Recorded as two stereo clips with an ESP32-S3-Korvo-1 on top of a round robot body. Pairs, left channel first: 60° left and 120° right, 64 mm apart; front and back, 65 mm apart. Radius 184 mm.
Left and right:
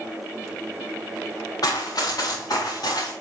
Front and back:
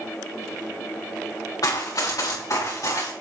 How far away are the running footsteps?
About 2.5 m.